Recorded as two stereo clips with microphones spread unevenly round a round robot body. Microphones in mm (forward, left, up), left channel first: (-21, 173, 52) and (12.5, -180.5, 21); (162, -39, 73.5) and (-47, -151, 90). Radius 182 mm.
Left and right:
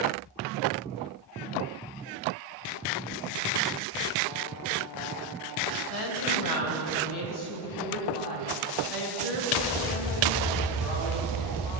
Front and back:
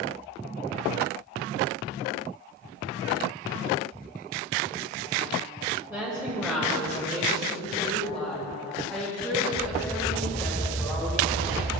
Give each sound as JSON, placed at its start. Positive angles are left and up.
{"t": 5.9, "sound": "a woman speaking", "azimuth_deg": 125, "distance_m": 2.5}